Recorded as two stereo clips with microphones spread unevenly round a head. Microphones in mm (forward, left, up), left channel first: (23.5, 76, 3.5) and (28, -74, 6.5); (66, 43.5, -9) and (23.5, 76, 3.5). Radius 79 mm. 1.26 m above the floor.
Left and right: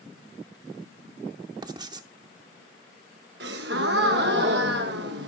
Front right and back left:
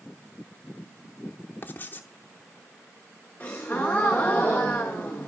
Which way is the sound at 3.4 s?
115° right.